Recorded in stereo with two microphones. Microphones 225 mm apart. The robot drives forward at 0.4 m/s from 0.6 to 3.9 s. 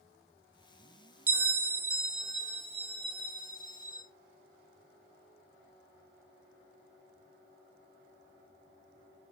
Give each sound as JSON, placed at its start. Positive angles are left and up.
{"t": 1.3, "sound": "a bell", "side_deg": -80, "distance_m": 0.6}